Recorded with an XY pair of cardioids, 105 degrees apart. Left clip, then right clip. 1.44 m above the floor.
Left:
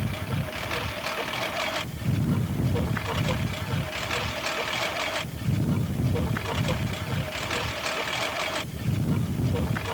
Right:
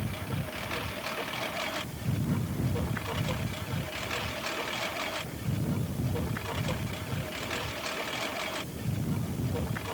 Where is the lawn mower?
30° left; by 9.9 s 35° left.